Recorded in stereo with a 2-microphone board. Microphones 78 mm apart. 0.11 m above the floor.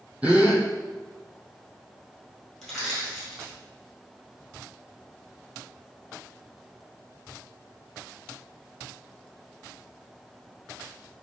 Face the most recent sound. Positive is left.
turn(degrees=5)  # may be behind; listen again after turning